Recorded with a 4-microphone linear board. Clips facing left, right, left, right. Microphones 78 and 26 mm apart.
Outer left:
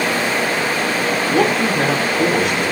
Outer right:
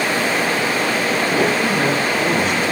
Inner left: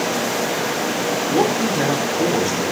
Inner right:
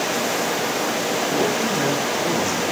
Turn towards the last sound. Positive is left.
turn(degrees=65)  # may be behind; listen again after turning